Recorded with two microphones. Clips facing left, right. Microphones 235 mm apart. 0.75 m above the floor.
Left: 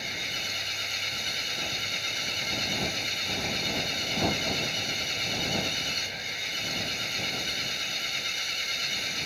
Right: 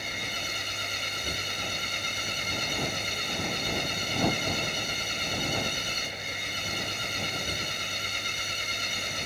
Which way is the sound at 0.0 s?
55° right (ahead or behind).